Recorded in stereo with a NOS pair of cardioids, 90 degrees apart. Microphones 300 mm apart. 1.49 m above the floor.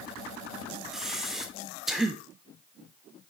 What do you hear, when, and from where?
0.9 s breathing: straight ahead, 1.1 m